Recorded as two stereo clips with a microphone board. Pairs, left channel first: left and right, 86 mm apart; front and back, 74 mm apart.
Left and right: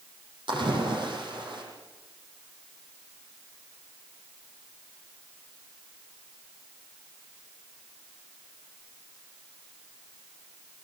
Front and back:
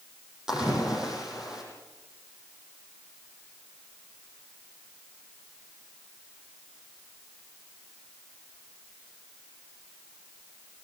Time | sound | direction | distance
0.5 | a splash | 100° right | 7 m